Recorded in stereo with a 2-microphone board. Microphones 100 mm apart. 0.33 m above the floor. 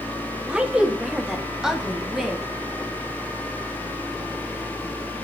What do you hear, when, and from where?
0.5 s a woman speaking: 10° right (ahead or behind), 1.1 m; by 2.4 s 5° right (ahead or behind), 2 m